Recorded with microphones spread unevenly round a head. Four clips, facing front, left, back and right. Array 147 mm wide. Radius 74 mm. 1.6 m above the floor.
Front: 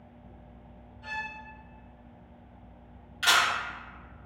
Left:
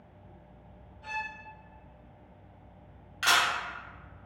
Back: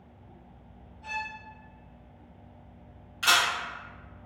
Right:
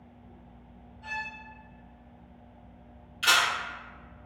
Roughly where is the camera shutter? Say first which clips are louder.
Right 1 dB, even; left.